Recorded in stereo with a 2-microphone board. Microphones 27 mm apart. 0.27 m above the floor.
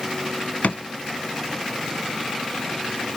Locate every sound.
0.6 s a drawer: 75° left (ahead or behind), 0.5 m